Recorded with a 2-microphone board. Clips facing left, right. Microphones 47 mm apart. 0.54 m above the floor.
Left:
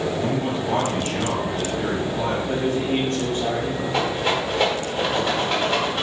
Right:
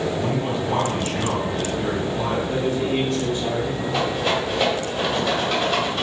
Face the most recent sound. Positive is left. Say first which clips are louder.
# even
turn(degrees=10)  # may be behind; listen again after turning